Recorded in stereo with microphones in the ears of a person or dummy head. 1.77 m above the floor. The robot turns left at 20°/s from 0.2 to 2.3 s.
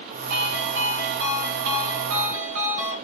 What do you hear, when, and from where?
0.3 s a ringtone: 50° right, 2 m; by 2.9 s 90° right, 2 m